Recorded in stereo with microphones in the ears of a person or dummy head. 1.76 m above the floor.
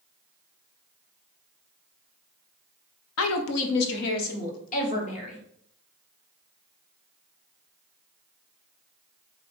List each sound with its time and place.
3.2 s a woman speaking: 80° left, 0.7 m; by 5.4 s 40° left (ahead or behind), 1.8 m